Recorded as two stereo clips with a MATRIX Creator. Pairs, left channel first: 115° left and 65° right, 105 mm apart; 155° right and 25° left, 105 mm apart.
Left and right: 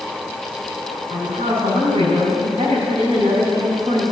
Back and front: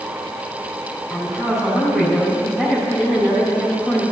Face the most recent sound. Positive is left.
turn(degrees=-45)